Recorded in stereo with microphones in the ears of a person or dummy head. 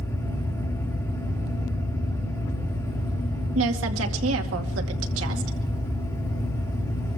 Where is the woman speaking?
80° right, 2.5 m.